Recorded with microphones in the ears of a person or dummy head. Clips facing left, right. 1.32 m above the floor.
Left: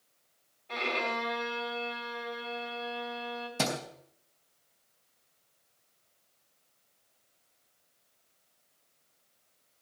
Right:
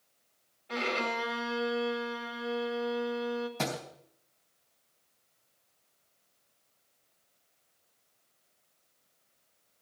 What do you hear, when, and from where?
0.7 s a violin: 5° right (ahead or behind), 1.9 m
3.6 s a thud: 55° left (ahead or behind), 4 m